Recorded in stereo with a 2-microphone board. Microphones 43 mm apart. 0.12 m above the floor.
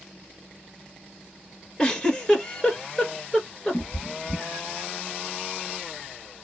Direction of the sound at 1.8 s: 15° left (ahead or behind).